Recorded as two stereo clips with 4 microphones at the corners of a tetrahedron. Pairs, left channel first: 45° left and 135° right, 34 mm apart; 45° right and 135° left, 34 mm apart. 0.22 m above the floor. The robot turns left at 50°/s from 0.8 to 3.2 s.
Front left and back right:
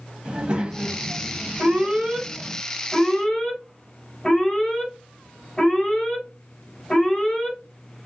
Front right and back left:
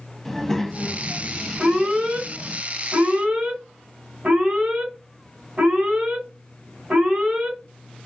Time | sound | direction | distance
0.2 | a child speaking | 110° right | 0.6 m
1.6 | an alarm | 160° right | 2 m